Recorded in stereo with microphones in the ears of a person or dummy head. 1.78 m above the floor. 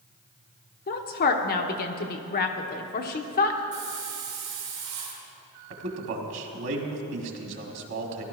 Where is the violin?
No violin in this recording.